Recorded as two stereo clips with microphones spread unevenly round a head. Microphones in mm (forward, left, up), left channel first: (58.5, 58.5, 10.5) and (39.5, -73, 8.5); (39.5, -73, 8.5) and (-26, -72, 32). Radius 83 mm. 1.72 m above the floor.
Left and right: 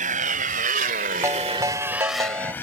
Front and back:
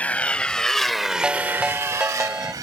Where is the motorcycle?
75° right; by 2.6 s 160° left.